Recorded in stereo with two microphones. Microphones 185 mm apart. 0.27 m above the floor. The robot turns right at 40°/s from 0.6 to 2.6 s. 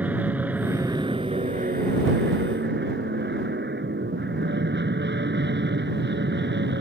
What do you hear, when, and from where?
0.0 s an aircraft: 170° right; by 6.8 s 90° right